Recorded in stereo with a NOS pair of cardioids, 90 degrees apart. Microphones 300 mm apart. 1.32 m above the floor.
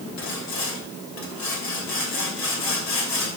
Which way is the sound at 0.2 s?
65° left.